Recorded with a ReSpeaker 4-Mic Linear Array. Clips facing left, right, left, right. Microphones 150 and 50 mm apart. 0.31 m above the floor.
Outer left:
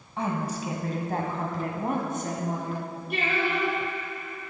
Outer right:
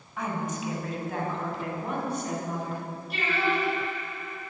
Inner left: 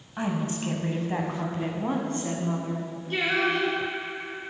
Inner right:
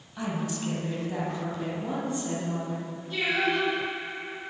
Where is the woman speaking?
30° left (ahead or behind), 2.5 m; by 2.9 s 55° left (ahead or behind), 3.5 m.